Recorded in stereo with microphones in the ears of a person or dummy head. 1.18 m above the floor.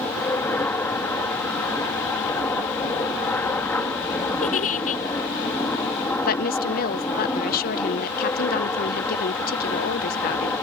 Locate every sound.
0.0 s an aircraft: centre (ahead or behind)
4.4 s a giggle: 35° left (ahead or behind)
6.2 s a woman speaking: 50° left (ahead or behind)